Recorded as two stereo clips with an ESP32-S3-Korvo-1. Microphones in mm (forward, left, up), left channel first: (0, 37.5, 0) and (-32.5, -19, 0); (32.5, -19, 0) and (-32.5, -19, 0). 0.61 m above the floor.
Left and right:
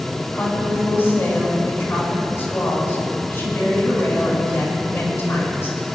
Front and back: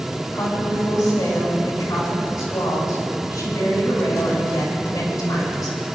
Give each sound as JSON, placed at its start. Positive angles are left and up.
{"t": 0.3, "sound": "a woman speaking", "azimuth_deg": 15, "distance_m": 5.5}